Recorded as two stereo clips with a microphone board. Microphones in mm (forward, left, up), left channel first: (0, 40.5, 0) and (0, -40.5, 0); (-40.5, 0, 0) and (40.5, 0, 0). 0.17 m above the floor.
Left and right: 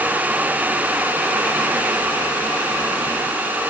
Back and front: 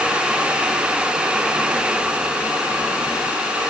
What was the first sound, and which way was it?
Only background noise.